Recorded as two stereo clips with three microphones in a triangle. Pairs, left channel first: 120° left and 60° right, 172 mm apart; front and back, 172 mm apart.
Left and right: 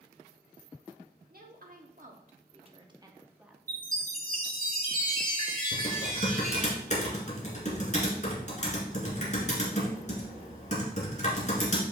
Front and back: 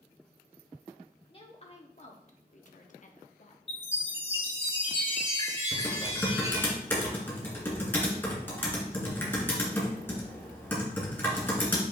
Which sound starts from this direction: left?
Typing on a keyboard, at 5.7 s.